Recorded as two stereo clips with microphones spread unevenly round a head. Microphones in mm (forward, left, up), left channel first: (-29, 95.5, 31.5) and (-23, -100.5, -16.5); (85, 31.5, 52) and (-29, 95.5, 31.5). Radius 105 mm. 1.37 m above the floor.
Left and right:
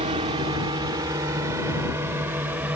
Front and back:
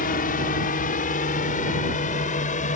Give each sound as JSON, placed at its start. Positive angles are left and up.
{"t": 0.0, "sound": "a drone", "azimuth_deg": -25}